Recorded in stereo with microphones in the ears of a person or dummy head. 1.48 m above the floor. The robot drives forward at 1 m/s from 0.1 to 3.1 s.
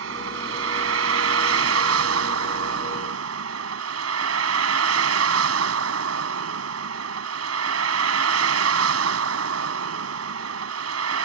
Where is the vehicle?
70° right (ahead or behind); by 11.2 s 85° right.